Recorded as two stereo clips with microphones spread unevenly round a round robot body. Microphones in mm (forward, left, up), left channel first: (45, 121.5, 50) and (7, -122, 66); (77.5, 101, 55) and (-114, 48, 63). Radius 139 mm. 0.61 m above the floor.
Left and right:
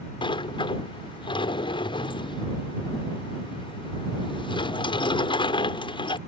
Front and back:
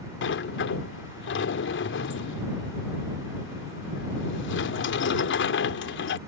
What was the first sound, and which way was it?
A sliding door, 15° left.